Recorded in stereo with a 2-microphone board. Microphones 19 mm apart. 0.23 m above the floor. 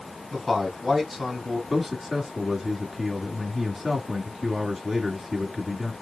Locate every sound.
0.3 s a man speaking: centre (ahead or behind), 3 m
1.7 s a man speaking: 15° right (ahead or behind), 1.9 m